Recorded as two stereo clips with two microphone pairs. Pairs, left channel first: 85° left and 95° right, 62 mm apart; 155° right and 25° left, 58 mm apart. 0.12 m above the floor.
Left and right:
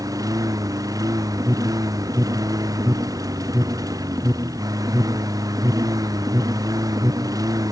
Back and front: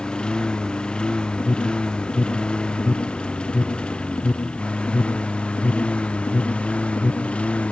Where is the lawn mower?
80° right; by 7.7 s 85° right.